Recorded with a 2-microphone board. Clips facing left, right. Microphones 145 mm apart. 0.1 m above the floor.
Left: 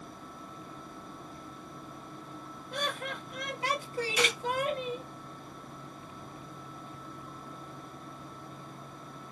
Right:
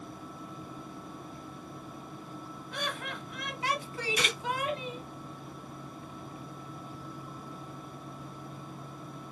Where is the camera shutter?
65° left (ahead or behind), 3 m.